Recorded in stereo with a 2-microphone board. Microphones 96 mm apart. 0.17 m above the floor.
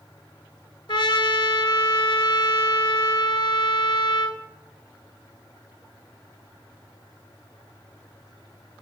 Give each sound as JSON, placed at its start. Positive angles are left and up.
{"t": 0.9, "sound": "a trumpet", "side_deg": 60, "distance_m": 0.6}